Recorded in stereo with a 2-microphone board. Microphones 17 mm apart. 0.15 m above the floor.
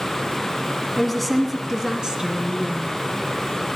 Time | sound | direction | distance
1.0 | a woman speaking | 15° left (ahead or behind) | 1.1 m